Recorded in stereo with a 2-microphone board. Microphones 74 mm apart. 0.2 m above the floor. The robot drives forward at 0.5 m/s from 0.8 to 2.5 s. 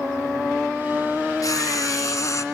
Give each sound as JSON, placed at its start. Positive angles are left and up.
{"t": 1.4, "sound": "frying", "side_deg": 60, "distance_m": 1.3}